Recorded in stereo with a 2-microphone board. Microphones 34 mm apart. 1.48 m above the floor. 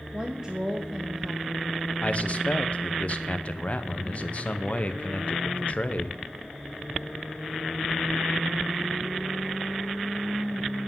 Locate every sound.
0.1 s a woman speaking: 20° right (ahead or behind), 0.9 m
2.0 s a man speaking: 40° left (ahead or behind), 0.7 m